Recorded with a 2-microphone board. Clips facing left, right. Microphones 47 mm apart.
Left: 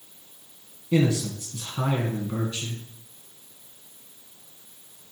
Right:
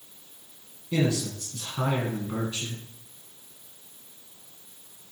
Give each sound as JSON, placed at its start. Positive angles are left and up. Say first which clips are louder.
{"t": 0.9, "sound": "a man speaking", "louder": "left 3 dB", "side_deg": 20, "distance_m": 1.3}